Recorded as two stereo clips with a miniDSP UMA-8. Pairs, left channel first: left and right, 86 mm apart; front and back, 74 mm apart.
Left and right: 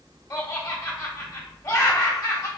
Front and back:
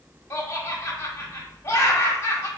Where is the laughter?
50° left, 1.2 m.